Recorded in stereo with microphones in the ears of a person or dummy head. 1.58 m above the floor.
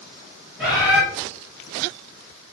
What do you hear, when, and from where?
0.6 s a bird: centre (ahead or behind), 1.0 m